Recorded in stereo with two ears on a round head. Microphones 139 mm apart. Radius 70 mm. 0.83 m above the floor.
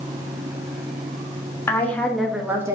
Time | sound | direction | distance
1.7 | a woman speaking | 15° left (ahead or behind) | 1.5 m